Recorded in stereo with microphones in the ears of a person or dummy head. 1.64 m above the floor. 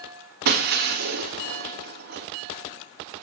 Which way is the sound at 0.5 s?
50° right (ahead or behind).